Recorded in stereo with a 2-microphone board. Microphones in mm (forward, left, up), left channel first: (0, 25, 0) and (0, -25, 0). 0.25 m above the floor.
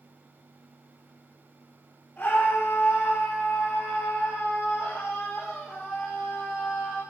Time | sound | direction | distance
2.2 | a scream | 40° left (ahead or behind) | 7.5 m